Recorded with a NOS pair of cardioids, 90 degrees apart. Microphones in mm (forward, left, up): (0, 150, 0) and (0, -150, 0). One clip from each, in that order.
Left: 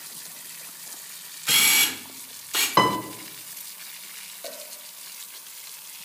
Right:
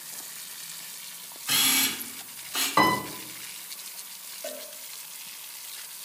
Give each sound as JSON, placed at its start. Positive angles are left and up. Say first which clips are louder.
{"t": 1.5, "sound": "a camera shutter", "louder": "left 5 dB", "azimuth_deg": 70, "distance_m": 0.9}
{"t": 2.8, "sound": "a piano", "louder": "left 1 dB", "azimuth_deg": 25, "distance_m": 0.7}
{"t": 4.4, "sound": "a cowbell", "louder": "right 2 dB", "azimuth_deg": 5, "distance_m": 0.5}